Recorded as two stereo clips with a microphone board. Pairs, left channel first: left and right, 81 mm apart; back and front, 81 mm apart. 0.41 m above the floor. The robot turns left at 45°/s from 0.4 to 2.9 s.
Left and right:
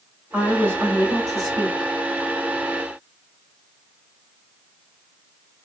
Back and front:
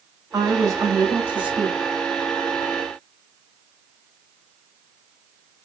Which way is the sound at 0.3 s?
20° right.